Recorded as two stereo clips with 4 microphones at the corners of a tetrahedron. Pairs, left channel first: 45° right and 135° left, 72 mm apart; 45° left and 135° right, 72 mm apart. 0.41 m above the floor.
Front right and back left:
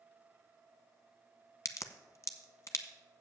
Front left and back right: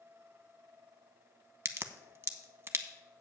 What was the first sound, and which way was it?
A crack, 85° right.